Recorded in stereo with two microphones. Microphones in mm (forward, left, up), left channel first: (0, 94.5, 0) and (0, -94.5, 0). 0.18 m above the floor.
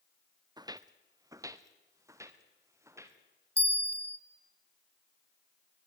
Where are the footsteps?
20° right (ahead or behind), 0.8 m; by 3.2 s 15° right (ahead or behind), 3 m.